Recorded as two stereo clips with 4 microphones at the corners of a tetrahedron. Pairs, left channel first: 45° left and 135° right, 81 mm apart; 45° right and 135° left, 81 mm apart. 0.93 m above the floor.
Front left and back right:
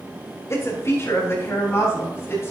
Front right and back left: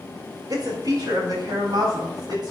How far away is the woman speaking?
About 3.5 m.